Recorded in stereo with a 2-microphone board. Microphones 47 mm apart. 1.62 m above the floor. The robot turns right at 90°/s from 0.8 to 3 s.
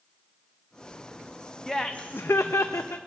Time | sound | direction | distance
1.7 | laughter | 5° left | 0.5 m